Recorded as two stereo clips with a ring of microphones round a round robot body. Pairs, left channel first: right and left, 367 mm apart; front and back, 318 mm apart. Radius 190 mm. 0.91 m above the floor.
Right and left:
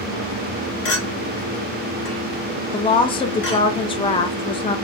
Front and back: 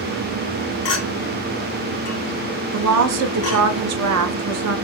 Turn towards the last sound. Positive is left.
turn(degrees=-165)